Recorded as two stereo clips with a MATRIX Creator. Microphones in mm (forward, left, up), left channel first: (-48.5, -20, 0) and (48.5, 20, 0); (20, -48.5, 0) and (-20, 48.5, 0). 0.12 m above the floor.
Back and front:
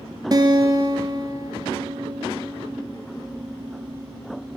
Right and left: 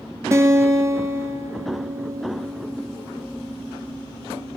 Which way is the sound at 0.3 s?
60° left.